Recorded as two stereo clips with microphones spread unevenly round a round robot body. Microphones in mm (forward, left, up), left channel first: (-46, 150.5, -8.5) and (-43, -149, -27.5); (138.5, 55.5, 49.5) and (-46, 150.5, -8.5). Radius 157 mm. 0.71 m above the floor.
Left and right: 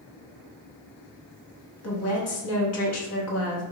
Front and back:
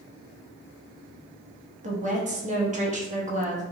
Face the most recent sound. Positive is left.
turn(degrees=120)